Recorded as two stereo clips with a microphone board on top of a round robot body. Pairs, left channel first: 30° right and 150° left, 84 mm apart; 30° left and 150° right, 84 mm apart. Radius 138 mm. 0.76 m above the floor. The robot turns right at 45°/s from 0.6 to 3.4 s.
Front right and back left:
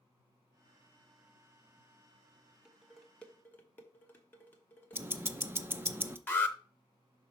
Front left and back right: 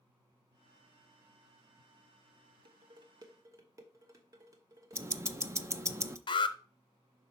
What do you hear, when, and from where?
2.6 s dishes clattering: 135° right, 1.1 m; by 5.0 s 100° right, 1.1 m
4.9 s ticking: 165° right, 0.7 m
6.3 s an alarm: 35° left, 0.9 m